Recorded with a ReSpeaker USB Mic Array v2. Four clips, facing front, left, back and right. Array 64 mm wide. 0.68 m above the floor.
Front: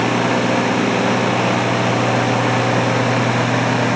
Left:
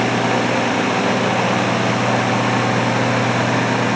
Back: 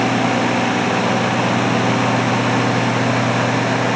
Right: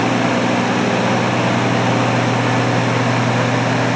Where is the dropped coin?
No dropped coin in this recording.